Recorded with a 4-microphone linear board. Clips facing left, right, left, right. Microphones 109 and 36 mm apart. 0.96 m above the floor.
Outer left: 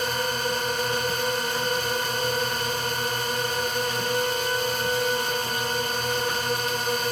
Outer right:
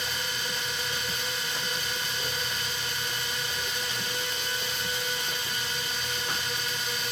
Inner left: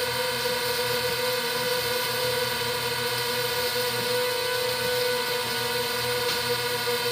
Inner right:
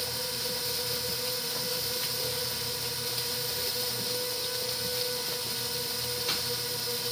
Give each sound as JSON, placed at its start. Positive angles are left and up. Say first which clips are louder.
{"t": 0.0, "sound": "a drone", "louder": "outer left 9 dB, inner left 9 dB", "side_deg": 50}